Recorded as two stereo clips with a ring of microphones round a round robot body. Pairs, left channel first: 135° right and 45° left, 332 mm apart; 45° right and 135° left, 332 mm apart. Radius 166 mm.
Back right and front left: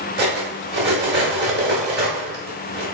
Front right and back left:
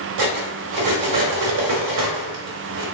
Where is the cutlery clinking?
105° left, 1.0 m.